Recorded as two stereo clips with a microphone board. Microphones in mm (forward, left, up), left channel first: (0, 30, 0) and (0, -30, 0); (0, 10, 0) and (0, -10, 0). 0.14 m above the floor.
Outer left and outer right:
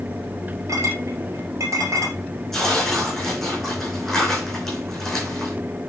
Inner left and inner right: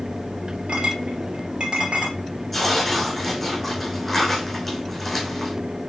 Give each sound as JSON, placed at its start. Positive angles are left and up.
{"t": 0.7, "sound": "a clink", "side_deg": -60, "distance_m": 1.8}
{"t": 2.5, "sound": "tearing paper", "side_deg": 0, "distance_m": 4.5}